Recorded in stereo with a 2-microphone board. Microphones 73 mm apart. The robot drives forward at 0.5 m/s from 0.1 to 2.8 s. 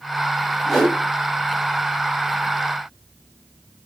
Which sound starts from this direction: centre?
A whoosh, at 0.7 s.